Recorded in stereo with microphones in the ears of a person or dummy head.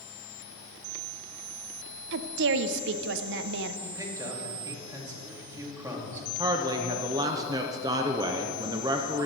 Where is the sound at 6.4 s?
15° right (ahead or behind), 0.6 m.